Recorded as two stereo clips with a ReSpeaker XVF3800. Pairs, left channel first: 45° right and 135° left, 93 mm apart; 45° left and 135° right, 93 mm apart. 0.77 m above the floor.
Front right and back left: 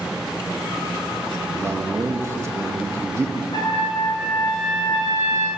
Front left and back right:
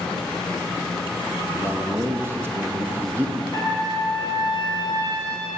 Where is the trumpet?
90° right, 2.5 m.